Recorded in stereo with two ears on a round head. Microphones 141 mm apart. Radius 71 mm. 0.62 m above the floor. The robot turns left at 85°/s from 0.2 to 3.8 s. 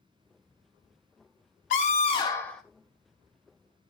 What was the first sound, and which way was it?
A scream, 80° left.